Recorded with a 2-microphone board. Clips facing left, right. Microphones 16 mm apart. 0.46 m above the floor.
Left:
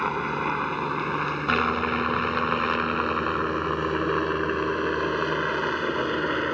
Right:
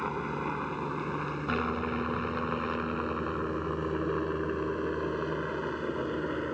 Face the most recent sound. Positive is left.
turn(degrees=50)  # may be behind; listen again after turning